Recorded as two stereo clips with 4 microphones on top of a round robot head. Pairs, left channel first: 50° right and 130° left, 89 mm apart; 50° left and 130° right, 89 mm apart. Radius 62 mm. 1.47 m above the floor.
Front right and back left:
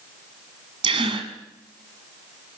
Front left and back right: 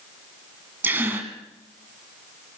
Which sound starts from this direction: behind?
A gasp, at 0.8 s.